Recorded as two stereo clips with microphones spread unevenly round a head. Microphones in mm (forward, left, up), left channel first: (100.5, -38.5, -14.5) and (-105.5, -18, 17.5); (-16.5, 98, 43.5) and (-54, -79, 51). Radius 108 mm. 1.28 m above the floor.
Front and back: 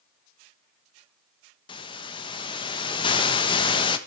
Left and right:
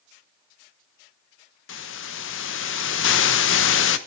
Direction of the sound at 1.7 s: 65° left.